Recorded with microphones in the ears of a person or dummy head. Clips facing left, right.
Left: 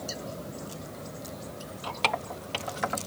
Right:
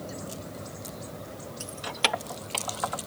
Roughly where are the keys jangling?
Right.